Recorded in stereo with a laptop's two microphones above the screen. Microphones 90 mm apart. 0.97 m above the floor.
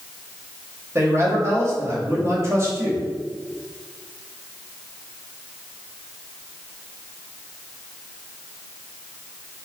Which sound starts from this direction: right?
A man speaking, at 0.9 s.